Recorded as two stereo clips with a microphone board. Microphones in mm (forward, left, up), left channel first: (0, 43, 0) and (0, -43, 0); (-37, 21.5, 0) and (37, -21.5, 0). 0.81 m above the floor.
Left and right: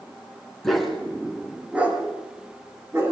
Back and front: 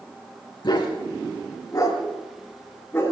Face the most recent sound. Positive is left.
turn(degrees=-145)